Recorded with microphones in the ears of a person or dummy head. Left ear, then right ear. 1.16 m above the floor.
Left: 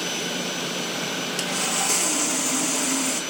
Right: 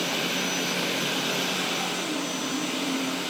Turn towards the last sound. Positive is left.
turn(degrees=60)  # may be behind; listen again after turning